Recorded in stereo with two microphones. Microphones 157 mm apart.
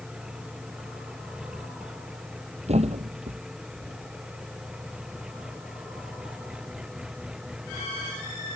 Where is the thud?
40° right (ahead or behind).